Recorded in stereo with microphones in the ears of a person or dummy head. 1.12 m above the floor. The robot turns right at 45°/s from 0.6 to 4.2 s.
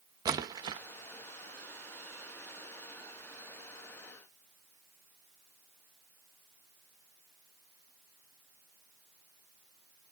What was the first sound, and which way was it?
A splash, 20° right (ahead or behind).